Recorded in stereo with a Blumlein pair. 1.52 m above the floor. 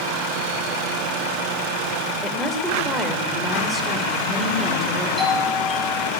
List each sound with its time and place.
2.2 s a woman speaking: 5° left, 5 m; by 5.1 s 15° right, 4 m
5.2 s a doorbell: 15° left, 6.5 m